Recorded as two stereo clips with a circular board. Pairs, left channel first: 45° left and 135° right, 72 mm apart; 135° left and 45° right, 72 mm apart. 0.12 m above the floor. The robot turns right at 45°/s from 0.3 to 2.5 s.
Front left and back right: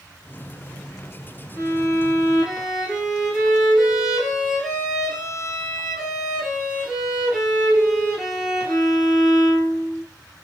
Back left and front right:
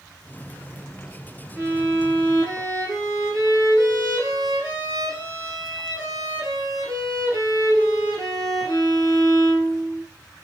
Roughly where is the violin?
Right.